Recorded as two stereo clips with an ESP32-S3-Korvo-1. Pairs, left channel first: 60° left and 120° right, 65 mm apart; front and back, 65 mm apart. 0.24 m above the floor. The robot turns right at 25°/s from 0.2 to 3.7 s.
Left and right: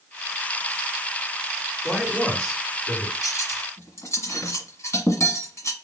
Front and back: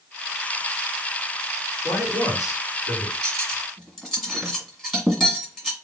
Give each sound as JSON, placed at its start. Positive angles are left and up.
{"t": 1.8, "sound": "a man speaking", "azimuth_deg": -25, "distance_m": 3.0}
{"t": 3.2, "sound": "cutlery clinking", "azimuth_deg": 75, "distance_m": 1.5}